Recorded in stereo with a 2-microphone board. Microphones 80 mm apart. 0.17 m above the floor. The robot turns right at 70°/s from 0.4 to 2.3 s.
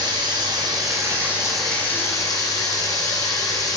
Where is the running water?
80° right, 0.8 m; by 3.8 s 50° left, 0.8 m.